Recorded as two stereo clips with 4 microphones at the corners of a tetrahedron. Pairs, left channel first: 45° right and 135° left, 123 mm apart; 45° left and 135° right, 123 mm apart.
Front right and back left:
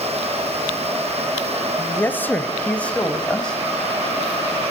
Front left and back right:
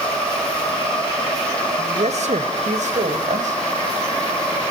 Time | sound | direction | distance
1.8 | a man speaking | 115° right | 2 m